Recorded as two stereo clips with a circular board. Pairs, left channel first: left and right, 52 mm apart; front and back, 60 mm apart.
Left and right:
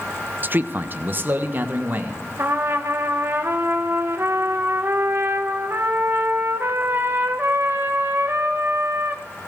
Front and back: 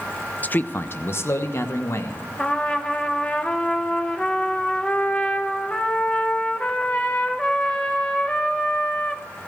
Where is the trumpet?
65° right, 1.0 m.